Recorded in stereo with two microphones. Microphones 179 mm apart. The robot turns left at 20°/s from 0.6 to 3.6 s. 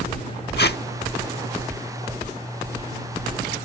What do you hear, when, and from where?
0.6 s tape being pulled: 70° left (ahead or behind); by 0.8 s 65° left (ahead or behind)